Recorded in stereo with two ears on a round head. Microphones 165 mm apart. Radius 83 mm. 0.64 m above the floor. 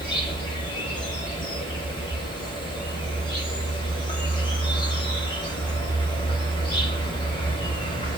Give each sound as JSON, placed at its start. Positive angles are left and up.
{"t": 0.0, "sound": "an insect", "side_deg": 25, "distance_m": 0.9}